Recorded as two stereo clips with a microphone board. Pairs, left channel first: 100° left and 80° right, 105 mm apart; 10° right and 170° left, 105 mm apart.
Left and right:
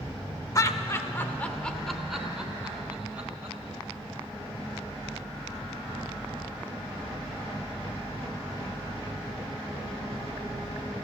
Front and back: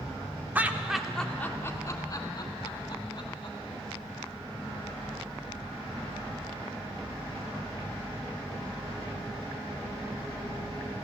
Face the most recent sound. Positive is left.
turn(degrees=-10)